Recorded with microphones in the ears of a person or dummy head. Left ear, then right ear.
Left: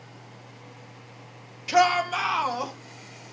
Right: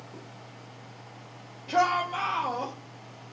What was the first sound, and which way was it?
A shout, 70° left (ahead or behind).